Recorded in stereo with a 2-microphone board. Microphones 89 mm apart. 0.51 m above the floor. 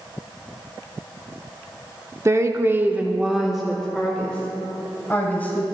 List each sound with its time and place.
2.2 s a woman speaking: 35° right (ahead or behind), 1.0 m; by 5.7 s 15° left (ahead or behind), 3 m